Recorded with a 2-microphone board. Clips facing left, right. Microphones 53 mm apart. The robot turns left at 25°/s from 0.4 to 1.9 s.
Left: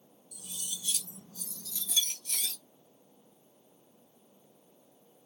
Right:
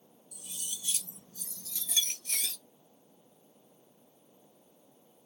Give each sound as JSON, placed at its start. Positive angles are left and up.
{"t": 0.3, "sound": "cutlery clinking", "azimuth_deg": -35, "distance_m": 1.2}